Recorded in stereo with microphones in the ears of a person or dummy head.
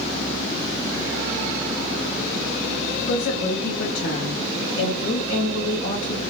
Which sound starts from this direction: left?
A woman speaking, at 3.1 s.